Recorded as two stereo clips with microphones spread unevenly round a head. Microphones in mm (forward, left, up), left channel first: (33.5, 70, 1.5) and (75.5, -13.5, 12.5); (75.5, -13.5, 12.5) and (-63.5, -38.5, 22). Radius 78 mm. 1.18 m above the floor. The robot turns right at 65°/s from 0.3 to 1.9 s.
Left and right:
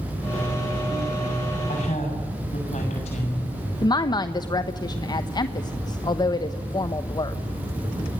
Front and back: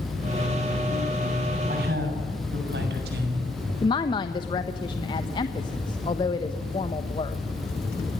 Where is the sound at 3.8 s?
75° left, 1.0 m.